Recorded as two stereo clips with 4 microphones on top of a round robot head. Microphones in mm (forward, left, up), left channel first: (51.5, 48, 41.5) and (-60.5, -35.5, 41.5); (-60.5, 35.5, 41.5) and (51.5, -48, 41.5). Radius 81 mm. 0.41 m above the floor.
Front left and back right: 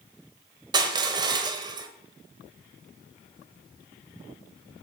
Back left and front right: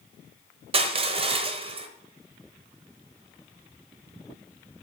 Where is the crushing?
85° right, 1.0 m.